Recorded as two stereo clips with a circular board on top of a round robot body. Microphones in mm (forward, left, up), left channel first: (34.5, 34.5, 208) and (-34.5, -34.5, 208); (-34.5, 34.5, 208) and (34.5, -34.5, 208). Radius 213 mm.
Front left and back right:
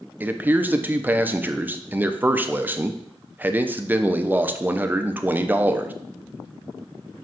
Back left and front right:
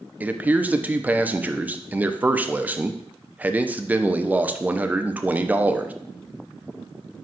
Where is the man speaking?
95° right, 0.8 m.